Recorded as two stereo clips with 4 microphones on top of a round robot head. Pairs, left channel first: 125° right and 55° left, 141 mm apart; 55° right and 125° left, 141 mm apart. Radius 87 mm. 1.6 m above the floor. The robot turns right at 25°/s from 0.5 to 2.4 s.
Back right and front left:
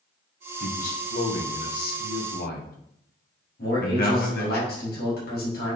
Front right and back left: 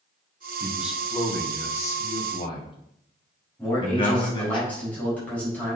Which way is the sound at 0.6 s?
160° right.